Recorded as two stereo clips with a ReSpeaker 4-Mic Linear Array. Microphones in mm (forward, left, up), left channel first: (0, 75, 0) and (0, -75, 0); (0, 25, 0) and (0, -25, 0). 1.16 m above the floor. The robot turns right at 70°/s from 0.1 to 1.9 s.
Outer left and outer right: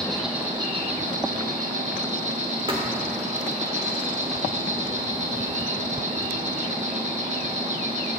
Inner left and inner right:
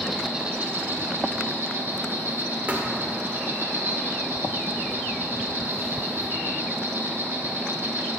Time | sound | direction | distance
0.0 | an insect | 175° left | 1.7 m
2.7 | a thud | 35° right (ahead or behind) | 1.4 m